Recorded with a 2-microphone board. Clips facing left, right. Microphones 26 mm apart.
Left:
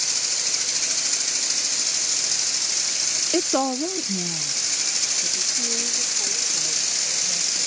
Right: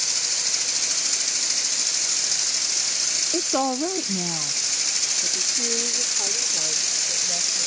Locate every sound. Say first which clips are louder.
3.3 s a woman speaking: left 2 dB; 40° left (ahead or behind); by 7.7 s 80° right